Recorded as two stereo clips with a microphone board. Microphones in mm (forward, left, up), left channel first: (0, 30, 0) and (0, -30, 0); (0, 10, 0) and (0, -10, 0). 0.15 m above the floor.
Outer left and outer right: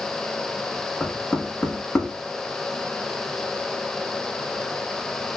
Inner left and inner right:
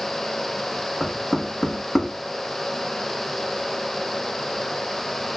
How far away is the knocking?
About 1.2 m.